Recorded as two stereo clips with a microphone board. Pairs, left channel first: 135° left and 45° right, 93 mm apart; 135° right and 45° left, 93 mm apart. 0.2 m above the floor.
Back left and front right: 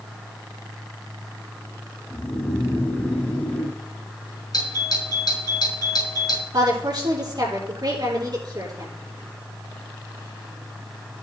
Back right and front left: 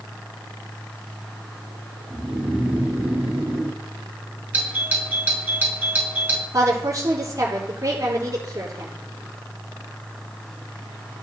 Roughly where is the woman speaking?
Ahead.